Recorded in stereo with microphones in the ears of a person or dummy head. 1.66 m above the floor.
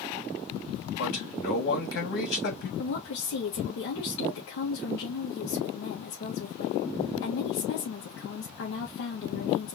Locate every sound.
1.0 s a man speaking: 65° left (ahead or behind), 2.5 m
2.8 s a woman speaking: 70° left (ahead or behind), 2.0 m